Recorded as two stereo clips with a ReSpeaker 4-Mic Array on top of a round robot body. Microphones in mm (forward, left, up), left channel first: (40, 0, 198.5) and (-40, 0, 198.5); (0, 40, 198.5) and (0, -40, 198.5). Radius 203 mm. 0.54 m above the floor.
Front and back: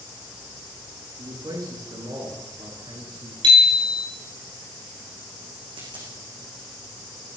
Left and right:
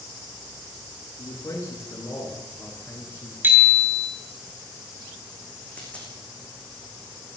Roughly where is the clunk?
I don't hear a clunk.